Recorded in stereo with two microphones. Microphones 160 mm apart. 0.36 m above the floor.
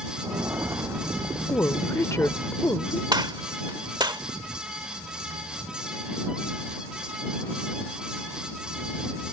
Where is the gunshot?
25° right (ahead or behind).